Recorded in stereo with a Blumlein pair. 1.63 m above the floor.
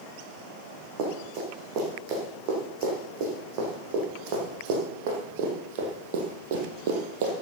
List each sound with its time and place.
1.0 s running footsteps: 40° right, 6 m; by 7.3 s 55° right, 3 m